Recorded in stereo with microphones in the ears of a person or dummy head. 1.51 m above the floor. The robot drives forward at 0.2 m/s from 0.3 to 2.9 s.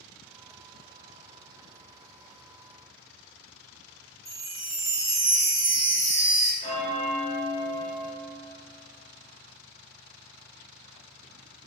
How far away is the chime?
About 1.3 m.